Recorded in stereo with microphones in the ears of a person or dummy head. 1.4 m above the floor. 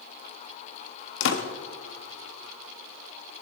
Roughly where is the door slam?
Left.